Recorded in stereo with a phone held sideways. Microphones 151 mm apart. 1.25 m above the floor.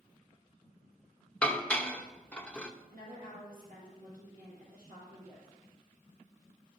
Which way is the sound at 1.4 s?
10° left (ahead or behind).